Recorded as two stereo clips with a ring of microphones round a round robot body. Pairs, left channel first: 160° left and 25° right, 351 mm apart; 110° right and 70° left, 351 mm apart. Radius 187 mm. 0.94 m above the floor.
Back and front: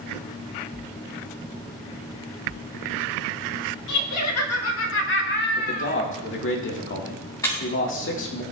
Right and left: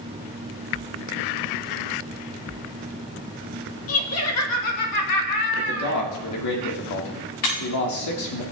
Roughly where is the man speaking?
Behind right.